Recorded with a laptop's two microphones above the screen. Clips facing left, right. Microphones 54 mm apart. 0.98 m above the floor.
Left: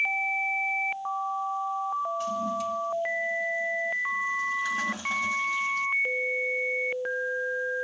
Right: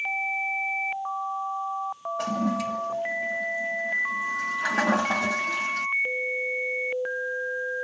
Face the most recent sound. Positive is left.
turn(degrees=-75)  # may be behind; listen again after turning